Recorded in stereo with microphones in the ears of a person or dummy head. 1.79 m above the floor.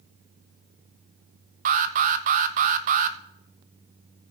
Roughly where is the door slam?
I don't hear a door slam.